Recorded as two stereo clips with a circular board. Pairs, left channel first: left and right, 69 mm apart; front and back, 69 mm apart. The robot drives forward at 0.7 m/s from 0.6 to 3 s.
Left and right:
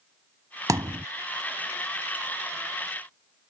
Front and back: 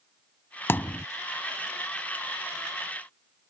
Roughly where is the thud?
Ahead right.